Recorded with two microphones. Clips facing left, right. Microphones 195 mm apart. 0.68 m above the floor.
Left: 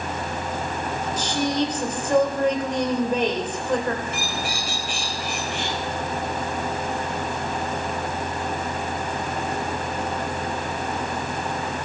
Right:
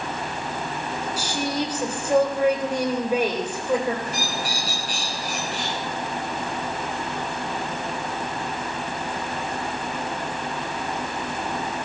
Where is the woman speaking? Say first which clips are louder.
Left 4 dB; 10° right (ahead or behind), 3 m.